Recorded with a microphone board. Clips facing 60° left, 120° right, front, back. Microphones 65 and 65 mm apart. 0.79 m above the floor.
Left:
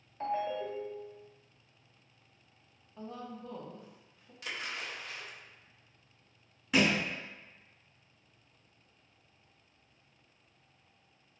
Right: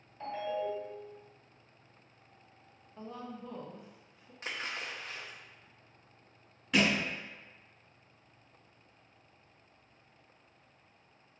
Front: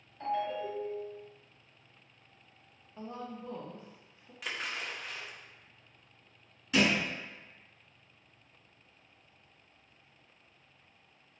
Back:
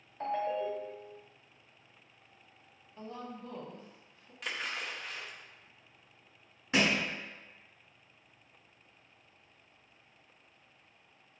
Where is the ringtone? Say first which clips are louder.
Left 1 dB, back 1 dB; 125° left, 1.0 m.